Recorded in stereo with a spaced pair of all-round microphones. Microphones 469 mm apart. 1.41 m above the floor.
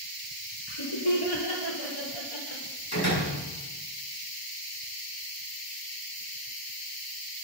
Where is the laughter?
85° left, 5 m; by 2.6 s 80° left, 4 m.